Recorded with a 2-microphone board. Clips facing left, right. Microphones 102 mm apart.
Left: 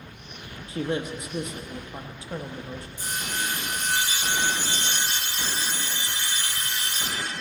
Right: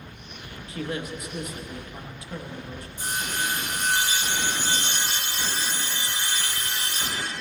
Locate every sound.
0.7 s a man speaking: 25° left (ahead or behind), 0.7 m
3.0 s sawing: 55° right (ahead or behind), 1.6 m